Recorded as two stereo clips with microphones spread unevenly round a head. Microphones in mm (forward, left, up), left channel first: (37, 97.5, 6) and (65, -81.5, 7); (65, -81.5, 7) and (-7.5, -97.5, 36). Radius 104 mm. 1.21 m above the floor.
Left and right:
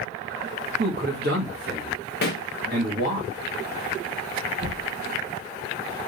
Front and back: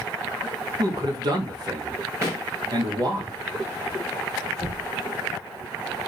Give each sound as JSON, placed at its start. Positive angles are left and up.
{"t": 0.8, "sound": "a man speaking", "azimuth_deg": -130, "distance_m": 1.6}
{"t": 2.2, "sound": "a pop", "azimuth_deg": 120, "distance_m": 0.8}
{"t": 4.6, "sound": "knocking", "azimuth_deg": -100, "distance_m": 3.5}